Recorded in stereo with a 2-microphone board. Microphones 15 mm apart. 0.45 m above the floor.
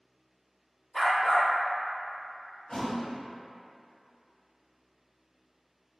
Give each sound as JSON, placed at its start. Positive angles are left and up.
{"t": 0.9, "sound": "a dog barking", "side_deg": 10, "distance_m": 1.4}
{"t": 2.7, "sound": "a thud", "side_deg": 40, "distance_m": 1.1}